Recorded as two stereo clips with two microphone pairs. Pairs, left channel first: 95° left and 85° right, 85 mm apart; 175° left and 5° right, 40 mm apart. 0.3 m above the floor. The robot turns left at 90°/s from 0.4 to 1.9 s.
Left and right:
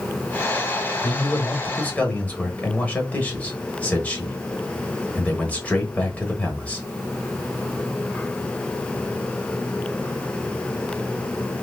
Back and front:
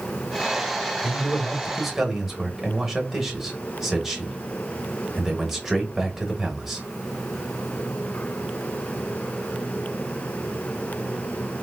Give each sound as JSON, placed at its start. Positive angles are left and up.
{"t": 1.0, "sound": "a man speaking", "azimuth_deg": 135, "distance_m": 0.9}